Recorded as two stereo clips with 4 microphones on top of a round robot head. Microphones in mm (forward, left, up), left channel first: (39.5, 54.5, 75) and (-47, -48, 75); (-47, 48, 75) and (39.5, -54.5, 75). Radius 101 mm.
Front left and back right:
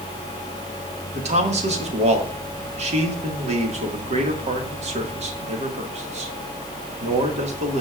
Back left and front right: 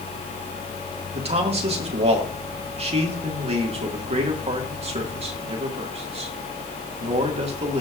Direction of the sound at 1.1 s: 90° right.